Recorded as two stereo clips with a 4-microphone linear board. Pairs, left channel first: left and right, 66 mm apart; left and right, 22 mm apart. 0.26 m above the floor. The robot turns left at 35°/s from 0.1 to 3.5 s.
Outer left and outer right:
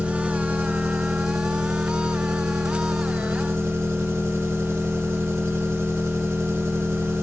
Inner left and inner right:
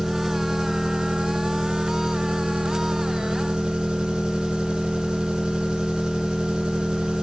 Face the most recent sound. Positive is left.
turn(degrees=-140)